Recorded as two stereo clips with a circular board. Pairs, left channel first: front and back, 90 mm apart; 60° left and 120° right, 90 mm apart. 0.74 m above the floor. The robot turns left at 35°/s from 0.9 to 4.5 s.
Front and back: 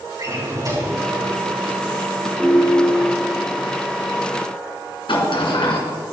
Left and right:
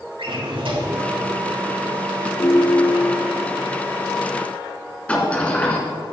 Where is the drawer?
135° right, 3.5 m.